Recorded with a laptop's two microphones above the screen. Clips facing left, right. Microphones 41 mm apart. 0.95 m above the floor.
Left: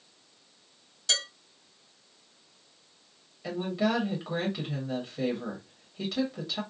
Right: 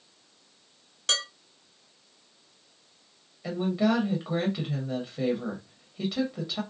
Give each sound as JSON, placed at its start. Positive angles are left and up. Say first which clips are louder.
{"t": 1.1, "sound": "dishes clattering", "louder": "right 1 dB", "side_deg": -60, "distance_m": 2.0}
{"t": 3.4, "sound": "a woman speaking", "louder": "right 3 dB", "side_deg": -5, "distance_m": 0.7}